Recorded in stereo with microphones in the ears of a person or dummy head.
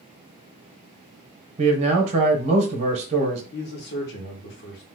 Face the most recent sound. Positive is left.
turn(degrees=55)  # may be behind; listen again after turning